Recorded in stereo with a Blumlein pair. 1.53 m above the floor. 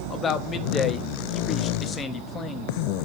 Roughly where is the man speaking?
Ahead.